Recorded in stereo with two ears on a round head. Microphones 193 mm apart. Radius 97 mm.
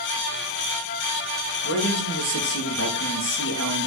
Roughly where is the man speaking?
Left.